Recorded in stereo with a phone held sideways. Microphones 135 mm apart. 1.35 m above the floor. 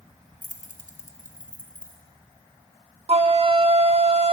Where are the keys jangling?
60° left (ahead or behind), 0.6 m; by 2.0 s 75° left (ahead or behind), 1.4 m.